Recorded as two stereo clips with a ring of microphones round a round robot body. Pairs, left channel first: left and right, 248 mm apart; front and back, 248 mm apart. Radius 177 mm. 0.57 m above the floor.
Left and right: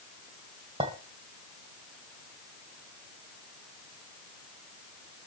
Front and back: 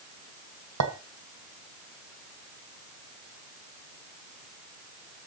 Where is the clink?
165° right, 1.8 m.